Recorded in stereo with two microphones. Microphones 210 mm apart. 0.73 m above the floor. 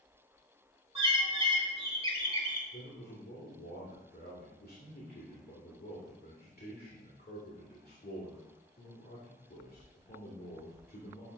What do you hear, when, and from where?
0.9 s a bird: 25° right (ahead or behind), 1.5 m
2.7 s a man speaking: 45° left (ahead or behind), 2.5 m